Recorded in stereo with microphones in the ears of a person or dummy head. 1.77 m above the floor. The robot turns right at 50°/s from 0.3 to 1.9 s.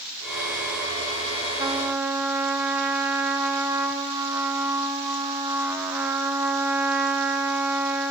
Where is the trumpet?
20° right (ahead or behind), 0.7 m; by 8.1 s 10° right (ahead or behind), 0.7 m.